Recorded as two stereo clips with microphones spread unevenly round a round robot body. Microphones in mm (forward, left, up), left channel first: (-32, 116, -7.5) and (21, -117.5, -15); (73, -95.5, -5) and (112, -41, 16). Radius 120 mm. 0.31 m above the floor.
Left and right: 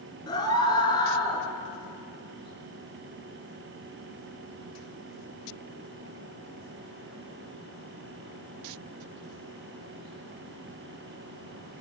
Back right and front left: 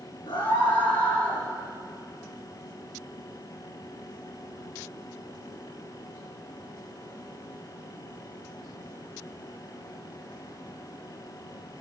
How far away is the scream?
About 5 m.